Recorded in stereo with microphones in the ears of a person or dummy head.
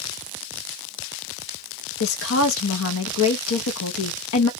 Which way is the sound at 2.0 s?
80° left.